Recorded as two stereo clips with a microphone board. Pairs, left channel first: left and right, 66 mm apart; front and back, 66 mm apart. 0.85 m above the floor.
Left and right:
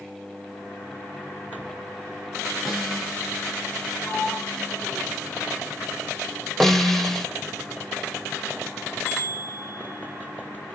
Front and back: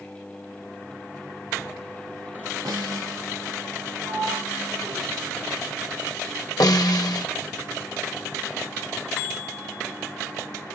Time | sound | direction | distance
2.6 | a snare drum | 175° left | 7.5 m
4.0 | a sliding door | 155° left | 7.5 m
6.6 | a snare drum | 5° left | 1.3 m